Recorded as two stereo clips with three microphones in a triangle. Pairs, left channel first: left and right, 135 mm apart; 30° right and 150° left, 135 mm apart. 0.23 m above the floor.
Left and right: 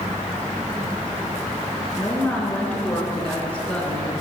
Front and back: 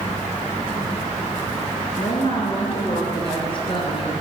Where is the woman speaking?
10° left, 3.5 m.